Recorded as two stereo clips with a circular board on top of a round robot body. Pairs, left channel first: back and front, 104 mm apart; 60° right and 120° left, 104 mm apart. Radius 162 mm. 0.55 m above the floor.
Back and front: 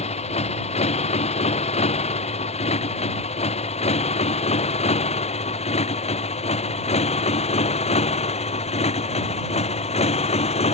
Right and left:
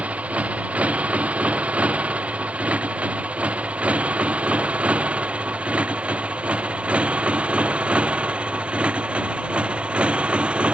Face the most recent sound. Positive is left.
turn(degrees=-160)